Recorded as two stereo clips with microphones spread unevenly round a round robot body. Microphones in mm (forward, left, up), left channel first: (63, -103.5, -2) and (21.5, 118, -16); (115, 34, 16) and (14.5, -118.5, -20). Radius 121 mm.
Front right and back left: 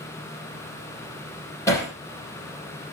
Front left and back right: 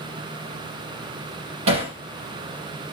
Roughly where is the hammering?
Behind.